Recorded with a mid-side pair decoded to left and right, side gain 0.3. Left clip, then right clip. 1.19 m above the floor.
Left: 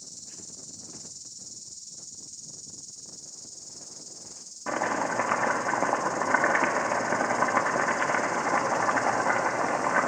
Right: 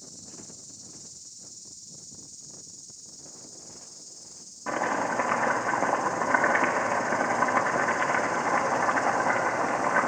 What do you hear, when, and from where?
0.0 s an insect: 70° left, 1.0 m
4.7 s chopping: 15° left, 0.9 m